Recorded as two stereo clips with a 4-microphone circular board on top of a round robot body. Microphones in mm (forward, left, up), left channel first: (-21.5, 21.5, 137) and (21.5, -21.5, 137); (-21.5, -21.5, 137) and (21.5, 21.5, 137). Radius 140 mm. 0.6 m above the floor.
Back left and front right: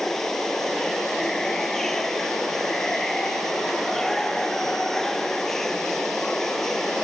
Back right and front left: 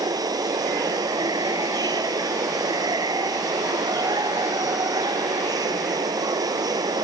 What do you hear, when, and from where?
0.0 s running water: 50° left